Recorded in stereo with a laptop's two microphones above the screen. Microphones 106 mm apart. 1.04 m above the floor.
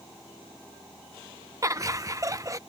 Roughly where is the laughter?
Right.